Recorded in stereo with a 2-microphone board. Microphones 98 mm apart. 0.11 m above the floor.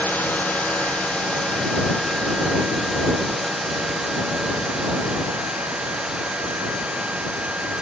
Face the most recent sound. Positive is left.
turn(degrees=-10)  # may be behind; listen again after turning